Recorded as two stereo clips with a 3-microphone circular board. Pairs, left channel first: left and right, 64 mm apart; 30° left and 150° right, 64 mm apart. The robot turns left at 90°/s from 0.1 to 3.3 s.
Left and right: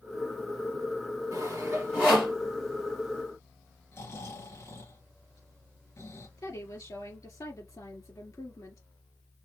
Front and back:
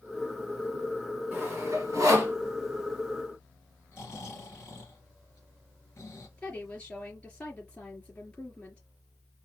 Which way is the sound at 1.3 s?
100° right.